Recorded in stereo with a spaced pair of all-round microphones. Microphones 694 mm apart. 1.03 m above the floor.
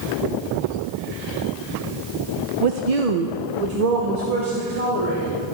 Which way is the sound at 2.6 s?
45° right (ahead or behind).